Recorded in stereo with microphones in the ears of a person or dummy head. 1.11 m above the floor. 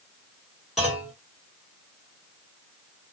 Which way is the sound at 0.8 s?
Centre (ahead or behind).